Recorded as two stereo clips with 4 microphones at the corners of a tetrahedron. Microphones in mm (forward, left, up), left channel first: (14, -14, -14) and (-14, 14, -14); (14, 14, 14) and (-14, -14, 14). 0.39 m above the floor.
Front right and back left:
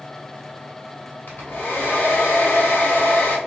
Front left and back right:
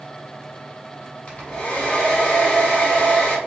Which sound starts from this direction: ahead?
A hair dryer, at 1.3 s.